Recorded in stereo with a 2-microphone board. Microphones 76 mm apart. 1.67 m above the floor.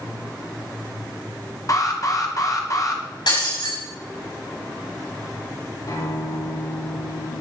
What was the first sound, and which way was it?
An alarm, 45° left (ahead or behind).